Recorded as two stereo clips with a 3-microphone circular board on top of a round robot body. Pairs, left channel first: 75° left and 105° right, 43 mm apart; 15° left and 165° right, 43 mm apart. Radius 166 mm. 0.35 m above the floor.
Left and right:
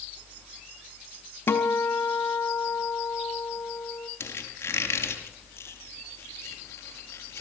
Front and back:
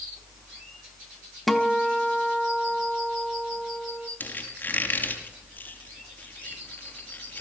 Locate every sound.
1.5 s a guitar: 100° left, 2.0 m
4.2 s a squeak: 60° left, 5.5 m